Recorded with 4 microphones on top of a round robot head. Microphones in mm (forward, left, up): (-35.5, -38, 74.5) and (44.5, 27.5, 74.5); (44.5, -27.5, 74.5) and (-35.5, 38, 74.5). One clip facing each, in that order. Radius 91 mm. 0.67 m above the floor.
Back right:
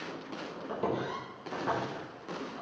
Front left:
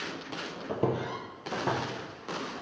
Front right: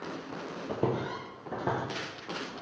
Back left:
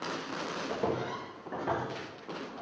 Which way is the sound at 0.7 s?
10° left.